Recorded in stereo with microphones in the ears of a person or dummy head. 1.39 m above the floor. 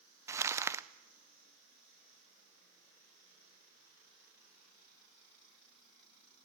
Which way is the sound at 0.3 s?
15° right (ahead or behind).